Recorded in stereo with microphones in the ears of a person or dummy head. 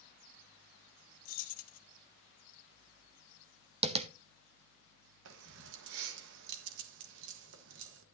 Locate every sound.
1.2 s keys jangling: 50° left (ahead or behind), 0.8 m
3.8 s tapping: 30° right (ahead or behind), 0.8 m
5.2 s keys jangling: 65° right (ahead or behind), 1.3 m